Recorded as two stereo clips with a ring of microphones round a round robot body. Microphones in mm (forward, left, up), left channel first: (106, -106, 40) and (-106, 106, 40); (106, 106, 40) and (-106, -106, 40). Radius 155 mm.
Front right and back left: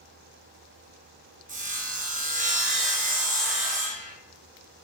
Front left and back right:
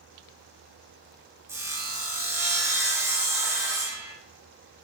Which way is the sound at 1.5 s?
155° left.